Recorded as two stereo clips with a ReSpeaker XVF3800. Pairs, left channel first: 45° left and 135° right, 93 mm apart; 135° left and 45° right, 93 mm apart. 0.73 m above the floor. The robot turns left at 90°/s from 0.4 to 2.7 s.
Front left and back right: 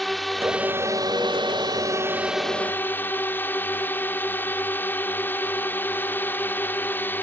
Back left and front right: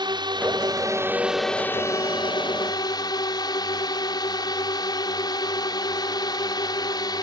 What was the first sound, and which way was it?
A drone, 45° right.